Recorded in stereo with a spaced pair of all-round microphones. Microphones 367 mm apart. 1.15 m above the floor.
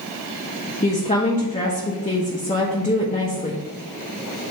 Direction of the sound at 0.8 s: 20° left (ahead or behind).